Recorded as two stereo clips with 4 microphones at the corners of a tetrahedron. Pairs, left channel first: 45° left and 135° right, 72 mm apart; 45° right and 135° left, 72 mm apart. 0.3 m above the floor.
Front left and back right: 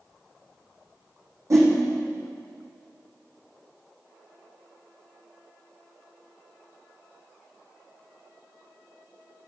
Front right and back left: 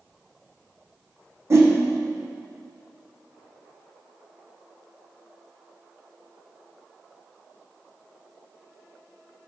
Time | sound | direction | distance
1.5 | a whoosh | 175° right | 2 m